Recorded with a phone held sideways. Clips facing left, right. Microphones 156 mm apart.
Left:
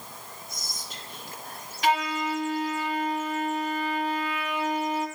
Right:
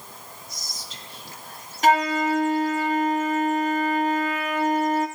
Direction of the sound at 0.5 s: 55° left (ahead or behind).